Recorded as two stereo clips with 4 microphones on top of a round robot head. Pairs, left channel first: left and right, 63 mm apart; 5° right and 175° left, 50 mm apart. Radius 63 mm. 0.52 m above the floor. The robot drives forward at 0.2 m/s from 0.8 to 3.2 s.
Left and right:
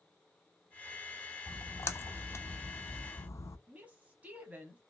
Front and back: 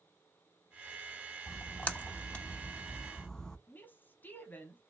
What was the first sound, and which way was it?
A splash, 45° left.